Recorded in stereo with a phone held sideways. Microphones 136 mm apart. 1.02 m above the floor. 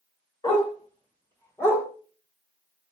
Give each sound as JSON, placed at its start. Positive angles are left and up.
{"t": 0.4, "sound": "a dog barking", "side_deg": 35, "distance_m": 2.0}